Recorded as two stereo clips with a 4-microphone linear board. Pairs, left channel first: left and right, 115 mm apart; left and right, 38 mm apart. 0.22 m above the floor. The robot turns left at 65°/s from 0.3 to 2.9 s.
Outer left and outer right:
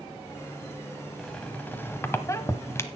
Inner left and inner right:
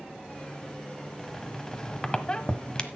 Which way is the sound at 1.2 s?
5° left (ahead or behind).